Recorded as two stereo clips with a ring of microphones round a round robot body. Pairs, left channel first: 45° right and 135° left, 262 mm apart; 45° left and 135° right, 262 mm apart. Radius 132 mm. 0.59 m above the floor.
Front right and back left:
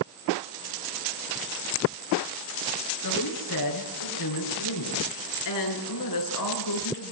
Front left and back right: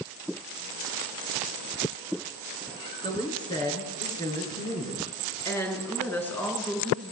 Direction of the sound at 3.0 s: 25° right.